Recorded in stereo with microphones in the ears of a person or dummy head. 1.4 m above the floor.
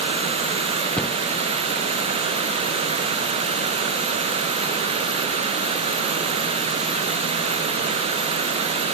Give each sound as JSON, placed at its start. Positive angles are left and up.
{"t": 1.0, "sound": "a cupboard door", "side_deg": 5, "distance_m": 0.9}